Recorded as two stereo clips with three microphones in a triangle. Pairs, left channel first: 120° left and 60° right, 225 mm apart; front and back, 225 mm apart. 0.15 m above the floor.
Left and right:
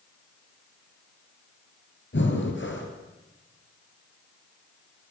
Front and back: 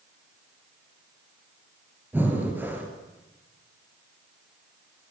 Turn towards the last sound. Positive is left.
turn(degrees=100)